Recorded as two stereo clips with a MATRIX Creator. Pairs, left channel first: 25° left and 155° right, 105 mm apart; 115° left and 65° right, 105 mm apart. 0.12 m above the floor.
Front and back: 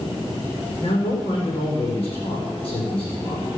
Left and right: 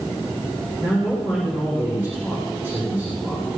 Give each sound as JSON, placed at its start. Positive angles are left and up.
{"t": 0.8, "sound": "a man speaking", "azimuth_deg": 5, "distance_m": 7.5}